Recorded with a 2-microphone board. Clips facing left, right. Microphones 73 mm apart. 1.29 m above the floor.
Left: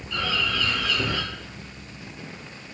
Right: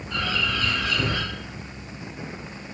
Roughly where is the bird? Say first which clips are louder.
Even; right.